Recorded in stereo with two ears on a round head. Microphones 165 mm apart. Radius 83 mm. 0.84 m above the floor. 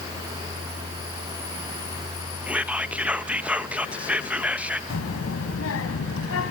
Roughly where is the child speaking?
Left.